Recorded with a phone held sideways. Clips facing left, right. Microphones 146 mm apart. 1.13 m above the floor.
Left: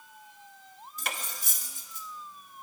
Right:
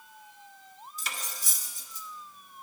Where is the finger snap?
No finger snap in this recording.